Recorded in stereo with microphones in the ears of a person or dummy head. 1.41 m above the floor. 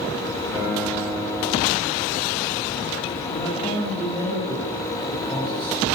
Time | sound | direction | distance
0.5 | a guitar | 10° right (ahead or behind) | 5.5 m
3.3 | a man speaking | 15° left (ahead or behind) | 10 m